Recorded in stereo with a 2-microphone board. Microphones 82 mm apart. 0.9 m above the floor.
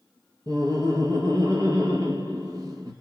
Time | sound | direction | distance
0.5 | laughter | 50° right (ahead or behind) | 1.4 m